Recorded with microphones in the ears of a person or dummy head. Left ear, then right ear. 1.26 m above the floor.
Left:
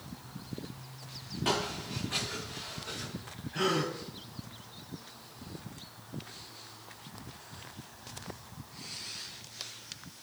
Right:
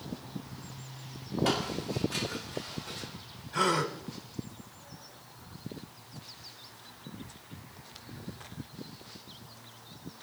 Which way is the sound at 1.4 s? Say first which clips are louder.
Even; 5° right (ahead or behind).